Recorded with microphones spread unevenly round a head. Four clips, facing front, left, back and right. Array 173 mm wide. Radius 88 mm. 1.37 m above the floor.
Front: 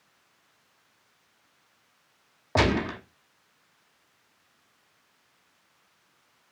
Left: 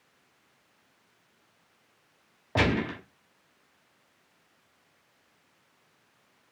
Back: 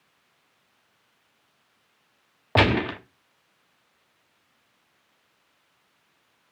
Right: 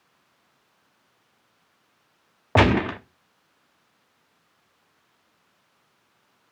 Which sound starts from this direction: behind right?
A gunshot, at 2.5 s.